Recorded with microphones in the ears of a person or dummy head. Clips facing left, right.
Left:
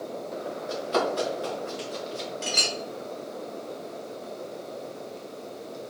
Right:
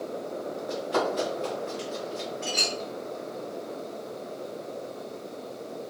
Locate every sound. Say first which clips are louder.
0.7 s running footsteps: left 1 dB; 25° right (ahead or behind), 1.7 m; by 2.3 s 10° left (ahead or behind), 1.9 m
2.4 s a clink: even; 40° left (ahead or behind), 0.7 m